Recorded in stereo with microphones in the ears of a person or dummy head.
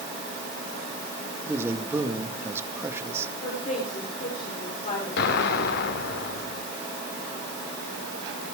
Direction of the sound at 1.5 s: 15° right (ahead or behind).